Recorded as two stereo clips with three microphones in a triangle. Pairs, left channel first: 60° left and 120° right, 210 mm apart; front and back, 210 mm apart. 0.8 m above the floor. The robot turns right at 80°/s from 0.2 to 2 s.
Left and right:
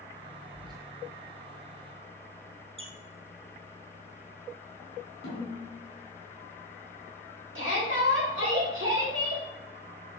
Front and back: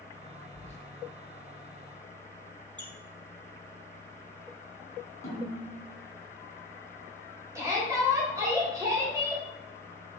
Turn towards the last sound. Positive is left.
turn(degrees=-105)